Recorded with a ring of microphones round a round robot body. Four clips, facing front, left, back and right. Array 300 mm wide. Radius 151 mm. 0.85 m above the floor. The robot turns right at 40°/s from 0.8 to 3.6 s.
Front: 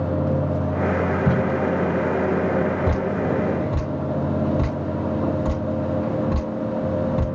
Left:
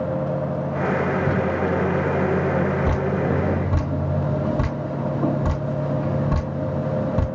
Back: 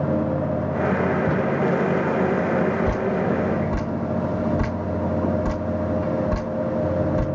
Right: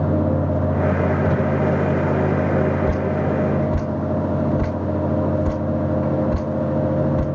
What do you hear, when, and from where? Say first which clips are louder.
1.3 s tape being pulled: right 2 dB, front 1 dB; 40° right, 6.5 m; by 1.4 s 35° right, 6.5 m
2.9 s dripping: right 1 dB, even; 65° left, 3 m; by 7.2 s 95° left, 3 m